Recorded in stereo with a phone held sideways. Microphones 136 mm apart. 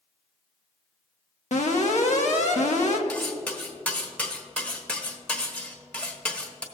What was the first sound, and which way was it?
An alarm, 70° left (ahead or behind).